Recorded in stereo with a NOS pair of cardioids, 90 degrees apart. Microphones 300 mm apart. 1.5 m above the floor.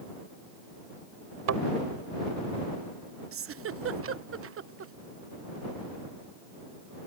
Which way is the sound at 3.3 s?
45° right.